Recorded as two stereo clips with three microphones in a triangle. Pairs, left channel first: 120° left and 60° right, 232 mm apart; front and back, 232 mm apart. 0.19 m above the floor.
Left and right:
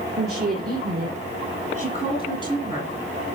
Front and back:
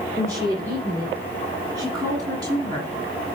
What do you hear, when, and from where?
0.2 s a woman speaking: 105° right, 4 m; by 2.9 s 140° right, 1.4 m